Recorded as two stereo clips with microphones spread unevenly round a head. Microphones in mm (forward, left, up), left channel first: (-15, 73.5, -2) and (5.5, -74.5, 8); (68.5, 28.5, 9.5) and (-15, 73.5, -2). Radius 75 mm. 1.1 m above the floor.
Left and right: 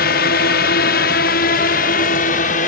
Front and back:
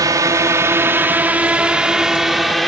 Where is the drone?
105° left; by 2.7 s 60° left.